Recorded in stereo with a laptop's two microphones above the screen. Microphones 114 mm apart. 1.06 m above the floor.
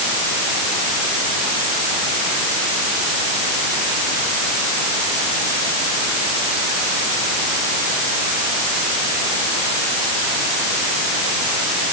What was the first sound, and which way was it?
Only background noise.